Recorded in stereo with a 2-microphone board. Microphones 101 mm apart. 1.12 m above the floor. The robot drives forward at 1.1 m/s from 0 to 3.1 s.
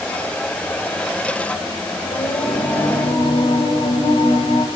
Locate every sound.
2.1 s singing: 80° left, 4.5 m; by 4.7 s 70° left (ahead or behind), 5 m